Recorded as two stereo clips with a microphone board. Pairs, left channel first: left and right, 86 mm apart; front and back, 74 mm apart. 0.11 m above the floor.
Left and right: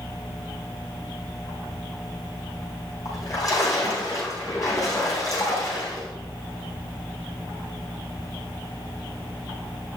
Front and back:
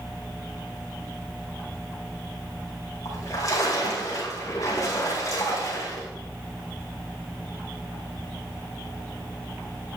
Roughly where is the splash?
Ahead left.